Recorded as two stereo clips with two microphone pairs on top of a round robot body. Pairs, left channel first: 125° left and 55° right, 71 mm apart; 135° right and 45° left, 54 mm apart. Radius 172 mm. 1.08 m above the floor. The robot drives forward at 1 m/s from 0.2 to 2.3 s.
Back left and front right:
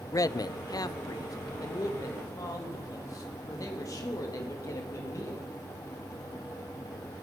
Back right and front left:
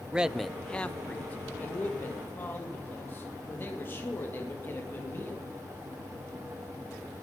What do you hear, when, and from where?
0.1 s a man speaking: 110° left, 0.6 m; by 5.5 s 170° left, 2.5 m